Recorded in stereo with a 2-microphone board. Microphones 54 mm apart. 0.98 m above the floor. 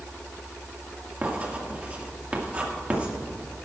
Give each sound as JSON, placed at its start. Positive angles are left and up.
{"t": 1.2, "sound": "writing", "side_deg": -25, "distance_m": 2.0}